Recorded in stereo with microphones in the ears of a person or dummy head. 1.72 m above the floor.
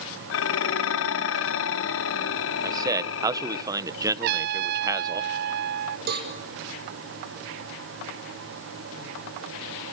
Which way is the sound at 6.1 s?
60° right (ahead or behind).